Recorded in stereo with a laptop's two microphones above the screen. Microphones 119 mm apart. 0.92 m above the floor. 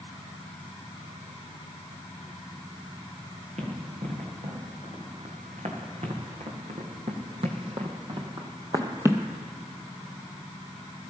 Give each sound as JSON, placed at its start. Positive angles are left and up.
{"t": 3.6, "sound": "running footsteps", "side_deg": -70, "distance_m": 3.5}